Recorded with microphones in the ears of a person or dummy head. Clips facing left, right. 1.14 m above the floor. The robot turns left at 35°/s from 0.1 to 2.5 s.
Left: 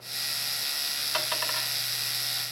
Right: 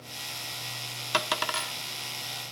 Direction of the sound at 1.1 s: 65° right (ahead or behind).